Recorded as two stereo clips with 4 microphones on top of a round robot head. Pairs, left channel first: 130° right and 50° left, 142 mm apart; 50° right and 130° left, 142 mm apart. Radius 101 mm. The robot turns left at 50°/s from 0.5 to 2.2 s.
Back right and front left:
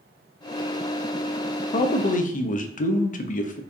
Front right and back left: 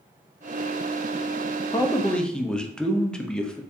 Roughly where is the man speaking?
Right.